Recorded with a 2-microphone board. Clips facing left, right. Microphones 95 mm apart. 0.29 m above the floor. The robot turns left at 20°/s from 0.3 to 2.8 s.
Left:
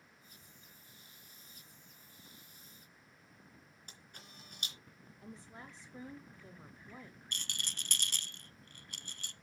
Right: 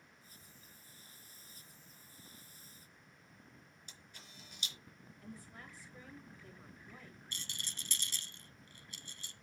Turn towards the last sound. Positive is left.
turn(degrees=65)  # may be behind; listen again after turning